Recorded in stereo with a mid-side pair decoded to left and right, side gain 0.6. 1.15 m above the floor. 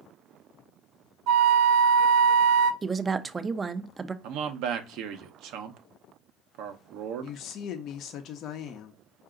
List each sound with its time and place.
1.3 s a flute: 65° right, 1.2 m
2.8 s a woman speaking: 25° right, 0.6 m
4.2 s a man speaking: 70° right, 0.9 m
7.2 s a woman speaking: 55° left, 0.8 m